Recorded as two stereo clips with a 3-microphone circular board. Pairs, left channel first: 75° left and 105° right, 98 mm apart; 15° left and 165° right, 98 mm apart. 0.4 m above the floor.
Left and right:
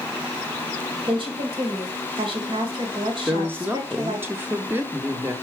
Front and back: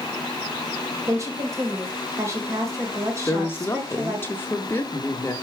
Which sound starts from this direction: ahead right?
A woman speaking, at 3.3 s.